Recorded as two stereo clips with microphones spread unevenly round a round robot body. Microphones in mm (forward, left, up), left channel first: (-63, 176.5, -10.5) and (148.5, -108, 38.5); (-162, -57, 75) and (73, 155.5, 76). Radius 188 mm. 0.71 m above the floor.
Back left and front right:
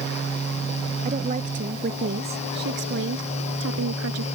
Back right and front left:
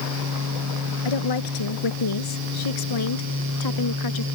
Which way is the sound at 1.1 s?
125° right.